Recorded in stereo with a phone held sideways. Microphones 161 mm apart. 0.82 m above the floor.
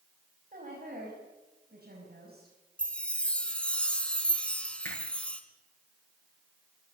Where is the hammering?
15° left (ahead or behind), 10 m.